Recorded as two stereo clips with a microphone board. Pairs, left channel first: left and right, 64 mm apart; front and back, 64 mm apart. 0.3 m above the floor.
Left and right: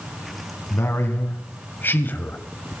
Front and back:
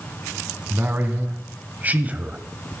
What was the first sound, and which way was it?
A man speaking, 130° left.